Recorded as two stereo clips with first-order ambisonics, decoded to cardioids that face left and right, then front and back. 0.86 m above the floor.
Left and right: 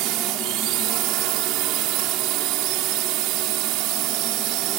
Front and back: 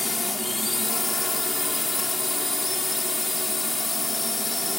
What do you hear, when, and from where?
0.0 s a drone: 80° right